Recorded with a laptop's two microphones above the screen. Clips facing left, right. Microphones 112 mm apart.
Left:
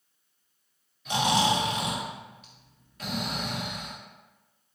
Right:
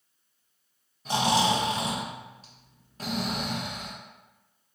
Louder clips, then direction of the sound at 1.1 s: Right 1 dB; 35° right (ahead or behind).